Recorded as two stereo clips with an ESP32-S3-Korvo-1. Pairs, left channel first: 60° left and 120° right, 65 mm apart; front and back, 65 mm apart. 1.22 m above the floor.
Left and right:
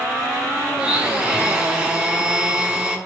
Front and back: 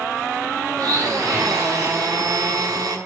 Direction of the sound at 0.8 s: 165° left.